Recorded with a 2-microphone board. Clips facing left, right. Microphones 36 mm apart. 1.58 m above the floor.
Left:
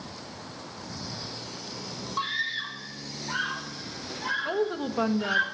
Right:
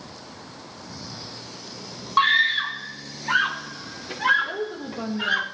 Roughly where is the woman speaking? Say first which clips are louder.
Left 2 dB; left.